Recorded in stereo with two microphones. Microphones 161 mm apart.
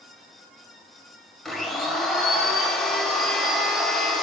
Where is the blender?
Centre (ahead or behind), 0.7 m.